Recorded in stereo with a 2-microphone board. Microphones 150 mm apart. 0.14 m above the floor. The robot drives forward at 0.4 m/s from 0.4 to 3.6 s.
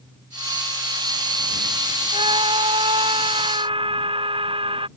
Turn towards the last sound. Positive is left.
turn(degrees=-35)  # may be behind; listen again after turning